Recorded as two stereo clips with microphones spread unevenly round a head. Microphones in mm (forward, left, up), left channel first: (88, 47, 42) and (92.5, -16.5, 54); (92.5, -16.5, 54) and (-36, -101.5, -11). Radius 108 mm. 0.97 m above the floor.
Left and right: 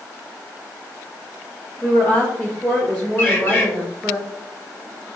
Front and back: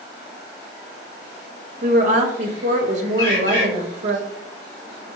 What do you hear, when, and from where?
1.8 s a woman speaking: 170° left, 0.7 m
3.2 s a bird: 40° left, 2 m